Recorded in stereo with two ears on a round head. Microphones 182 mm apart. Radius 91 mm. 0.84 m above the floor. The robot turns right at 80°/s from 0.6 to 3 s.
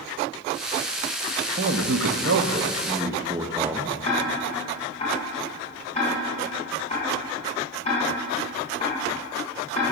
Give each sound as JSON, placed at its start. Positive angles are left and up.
{"t": 1.6, "sound": "a man speaking", "azimuth_deg": -130, "distance_m": 0.8}
{"t": 4.0, "sound": "ticking", "side_deg": 35, "distance_m": 3.0}